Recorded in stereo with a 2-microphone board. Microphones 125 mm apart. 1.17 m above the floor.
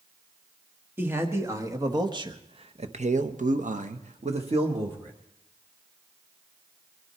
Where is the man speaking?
20° right (ahead or behind), 1.9 m; by 5.1 s 40° right (ahead or behind), 1.5 m.